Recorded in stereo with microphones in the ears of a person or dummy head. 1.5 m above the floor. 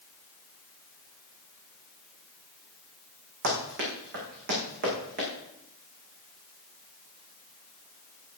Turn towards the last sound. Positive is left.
turn(degrees=-55)  # may be behind; listen again after turning